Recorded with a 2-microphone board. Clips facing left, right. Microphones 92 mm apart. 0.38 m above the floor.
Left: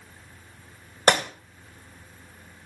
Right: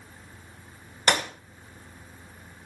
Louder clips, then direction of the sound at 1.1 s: Left 4 dB; 40° left (ahead or behind).